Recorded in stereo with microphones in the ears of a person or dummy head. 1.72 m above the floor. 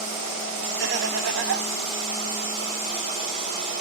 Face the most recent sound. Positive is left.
turn(degrees=-70)  # may be behind; listen again after turning